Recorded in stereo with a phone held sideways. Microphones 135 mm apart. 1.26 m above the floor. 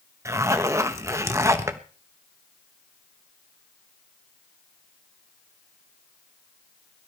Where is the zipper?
20° right (ahead or behind), 1.1 m.